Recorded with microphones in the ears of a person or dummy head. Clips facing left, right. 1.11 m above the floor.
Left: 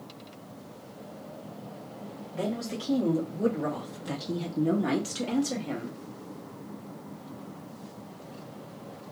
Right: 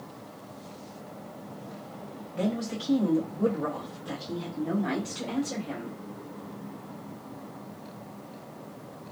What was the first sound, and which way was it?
A woman speaking, 5° right (ahead or behind).